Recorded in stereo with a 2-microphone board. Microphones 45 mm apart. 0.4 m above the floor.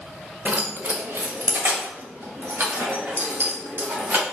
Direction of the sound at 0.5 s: 40° right (ahead or behind).